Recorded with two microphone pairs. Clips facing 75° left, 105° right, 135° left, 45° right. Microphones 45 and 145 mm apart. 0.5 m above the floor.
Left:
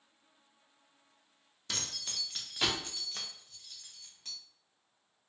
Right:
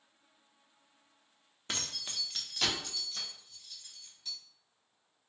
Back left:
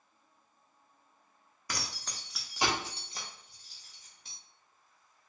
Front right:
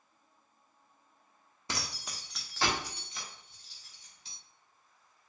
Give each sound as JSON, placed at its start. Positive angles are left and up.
{"t": 1.7, "sound": "keys jangling", "azimuth_deg": -70, "distance_m": 0.6}